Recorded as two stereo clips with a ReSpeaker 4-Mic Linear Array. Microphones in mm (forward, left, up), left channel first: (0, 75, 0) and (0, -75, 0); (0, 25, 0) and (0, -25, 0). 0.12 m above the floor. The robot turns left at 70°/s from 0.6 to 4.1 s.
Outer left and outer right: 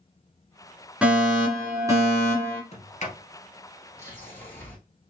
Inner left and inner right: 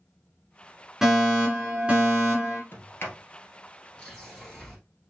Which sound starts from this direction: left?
A sliding door, at 2.7 s.